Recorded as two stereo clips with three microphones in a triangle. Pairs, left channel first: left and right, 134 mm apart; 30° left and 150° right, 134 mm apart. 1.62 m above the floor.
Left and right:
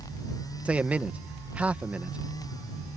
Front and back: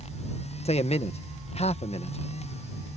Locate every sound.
0.7 s a man speaking: 10° right